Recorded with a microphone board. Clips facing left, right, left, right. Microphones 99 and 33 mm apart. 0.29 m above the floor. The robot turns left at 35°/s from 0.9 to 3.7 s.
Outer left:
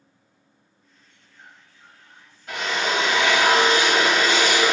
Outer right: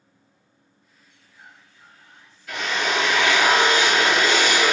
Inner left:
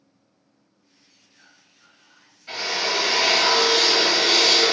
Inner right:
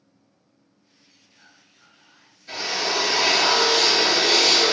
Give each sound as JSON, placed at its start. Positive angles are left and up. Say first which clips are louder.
{"t": 1.1, "sound": "whispering", "louder": "outer right 1 dB, inner right 1 dB", "azimuth_deg": -15, "distance_m": 1.6}
{"t": 2.5, "sound": "a drill", "louder": "even, inner left 1 dB", "azimuth_deg": 50, "distance_m": 1.6}